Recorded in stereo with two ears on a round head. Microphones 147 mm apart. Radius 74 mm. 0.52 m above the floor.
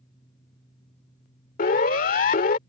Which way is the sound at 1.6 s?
50° left (ahead or behind).